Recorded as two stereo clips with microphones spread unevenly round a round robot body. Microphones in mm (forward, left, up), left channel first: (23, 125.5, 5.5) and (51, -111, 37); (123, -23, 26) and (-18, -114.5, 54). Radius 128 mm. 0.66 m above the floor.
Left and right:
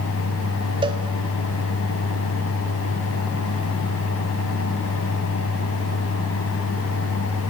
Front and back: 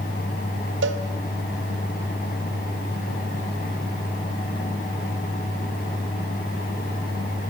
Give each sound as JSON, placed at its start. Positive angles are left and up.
{"t": 0.8, "sound": "a cowbell", "azimuth_deg": -155, "distance_m": 1.9}